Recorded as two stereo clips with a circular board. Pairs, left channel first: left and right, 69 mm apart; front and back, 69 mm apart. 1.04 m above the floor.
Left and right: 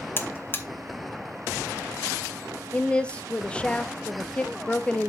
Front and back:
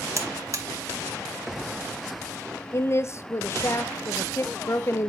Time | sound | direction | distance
0.2 | a buzzer | 145° left | 0.8 m
2.7 | a woman speaking | 25° left | 0.6 m